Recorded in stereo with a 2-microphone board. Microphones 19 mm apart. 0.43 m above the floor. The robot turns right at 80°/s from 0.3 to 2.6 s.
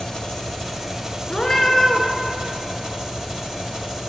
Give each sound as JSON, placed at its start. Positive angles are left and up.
{"t": 0.0, "sound": "an engine running", "azimuth_deg": 145, "distance_m": 1.7}
{"t": 1.3, "sound": "a cat meowing", "azimuth_deg": 140, "distance_m": 1.4}